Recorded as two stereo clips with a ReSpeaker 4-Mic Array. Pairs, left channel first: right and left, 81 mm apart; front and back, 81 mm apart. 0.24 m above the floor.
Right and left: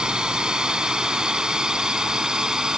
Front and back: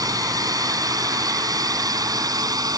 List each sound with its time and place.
0.0 s a drone: 165° left; by 2.8 s 170° left